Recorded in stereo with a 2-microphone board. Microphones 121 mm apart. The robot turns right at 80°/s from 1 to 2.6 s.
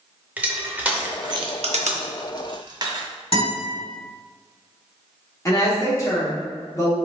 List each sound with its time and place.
0.4 s crushing: 15° right (ahead or behind), 0.5 m; by 3.0 s 35° right (ahead or behind), 0.5 m
3.3 s a guitar: 50° left (ahead or behind), 1.8 m
5.5 s a woman speaking: 30° left (ahead or behind), 1.1 m